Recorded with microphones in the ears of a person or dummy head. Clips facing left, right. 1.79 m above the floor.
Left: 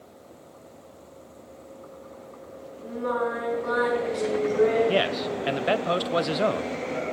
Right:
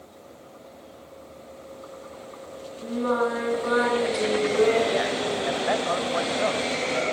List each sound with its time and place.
2.8 s singing: 40° right (ahead or behind), 9 m
4.9 s a man speaking: 40° left (ahead or behind), 1.1 m